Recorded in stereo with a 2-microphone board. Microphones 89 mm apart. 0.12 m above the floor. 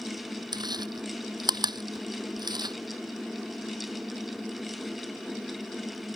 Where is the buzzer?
I don't hear a buzzer.